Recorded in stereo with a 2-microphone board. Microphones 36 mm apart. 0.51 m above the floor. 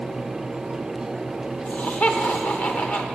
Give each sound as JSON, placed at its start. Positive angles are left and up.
{"t": 1.6, "sound": "laughter", "side_deg": 50, "distance_m": 1.4}